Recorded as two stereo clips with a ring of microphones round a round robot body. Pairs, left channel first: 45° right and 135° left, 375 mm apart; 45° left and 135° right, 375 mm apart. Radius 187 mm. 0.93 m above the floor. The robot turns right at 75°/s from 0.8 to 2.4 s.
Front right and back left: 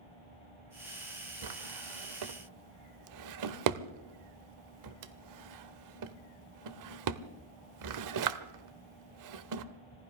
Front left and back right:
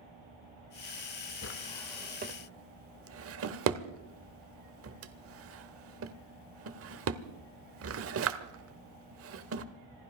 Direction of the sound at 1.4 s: 100° left.